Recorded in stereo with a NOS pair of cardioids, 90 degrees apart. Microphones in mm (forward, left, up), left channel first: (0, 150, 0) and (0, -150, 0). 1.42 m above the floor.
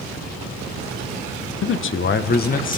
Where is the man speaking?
45° left, 0.8 m; by 2.8 s 25° left, 1.3 m.